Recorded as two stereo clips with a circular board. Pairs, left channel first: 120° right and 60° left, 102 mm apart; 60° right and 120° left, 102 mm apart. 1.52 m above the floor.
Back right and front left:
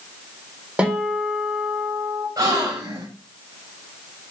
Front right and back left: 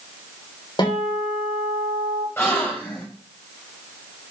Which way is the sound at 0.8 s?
20° right.